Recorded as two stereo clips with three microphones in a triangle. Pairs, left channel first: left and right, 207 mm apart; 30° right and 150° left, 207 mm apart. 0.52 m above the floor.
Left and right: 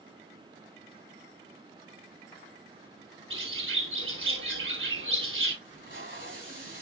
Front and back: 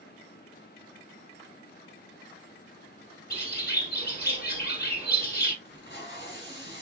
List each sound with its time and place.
3.3 s a bird: 70° right, 3 m
5.7 s tape being pulled: 65° right, 2.5 m